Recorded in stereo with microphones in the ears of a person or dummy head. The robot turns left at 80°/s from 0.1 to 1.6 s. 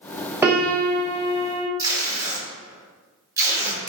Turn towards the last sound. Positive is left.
turn(degrees=-20)  # may be behind; listen again after turning